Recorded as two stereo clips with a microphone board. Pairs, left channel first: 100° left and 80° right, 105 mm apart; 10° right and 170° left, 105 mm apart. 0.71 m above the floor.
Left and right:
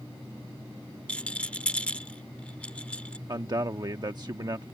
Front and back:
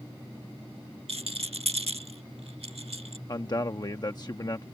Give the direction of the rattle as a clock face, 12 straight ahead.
6 o'clock.